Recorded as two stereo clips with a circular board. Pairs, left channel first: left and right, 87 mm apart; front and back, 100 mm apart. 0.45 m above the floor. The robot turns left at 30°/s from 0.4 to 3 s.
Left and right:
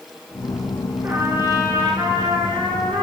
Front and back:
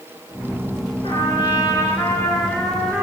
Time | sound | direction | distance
1.0 | a trumpet | 30° right | 3.5 m